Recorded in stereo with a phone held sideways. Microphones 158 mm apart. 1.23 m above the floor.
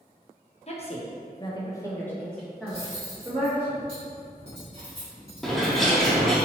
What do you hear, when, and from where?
0.7 s a woman speaking: 45° left (ahead or behind), 0.7 m; by 3.7 s 10° right (ahead or behind), 1.3 m
2.7 s cutlery clinking: 40° right (ahead or behind), 1.9 m
5.4 s a bird: centre (ahead or behind), 0.7 m